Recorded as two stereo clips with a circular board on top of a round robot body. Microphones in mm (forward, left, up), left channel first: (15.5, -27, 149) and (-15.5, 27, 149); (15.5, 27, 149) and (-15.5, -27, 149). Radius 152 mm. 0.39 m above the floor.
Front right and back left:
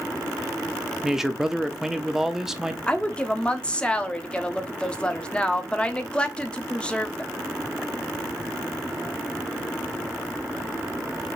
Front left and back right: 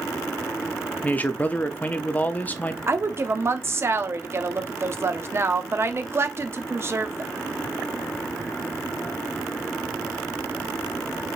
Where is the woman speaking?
125° right, 1.2 m.